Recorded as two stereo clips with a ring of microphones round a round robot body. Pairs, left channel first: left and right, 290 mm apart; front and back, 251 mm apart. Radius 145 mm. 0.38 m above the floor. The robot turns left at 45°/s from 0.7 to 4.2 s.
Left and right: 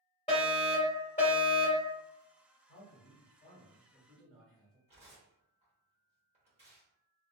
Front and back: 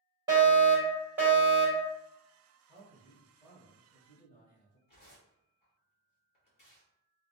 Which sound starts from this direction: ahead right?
Tearing paper, at 4.9 s.